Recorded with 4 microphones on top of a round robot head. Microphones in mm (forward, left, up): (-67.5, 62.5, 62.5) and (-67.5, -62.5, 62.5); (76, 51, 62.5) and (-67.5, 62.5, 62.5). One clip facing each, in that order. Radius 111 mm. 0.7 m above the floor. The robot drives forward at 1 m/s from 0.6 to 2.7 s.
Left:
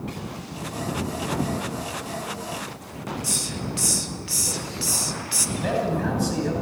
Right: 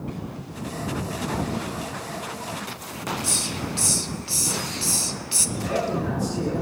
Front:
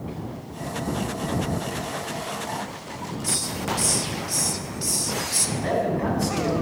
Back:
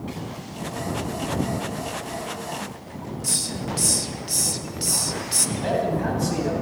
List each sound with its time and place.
3.2 s a hiss: 150° right, 1.6 m
5.6 s a man speaking: 115° left, 9.5 m